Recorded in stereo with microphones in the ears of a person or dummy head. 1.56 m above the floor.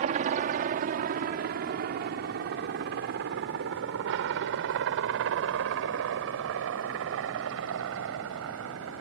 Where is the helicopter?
40° right (ahead or behind); by 9.0 s 70° right (ahead or behind).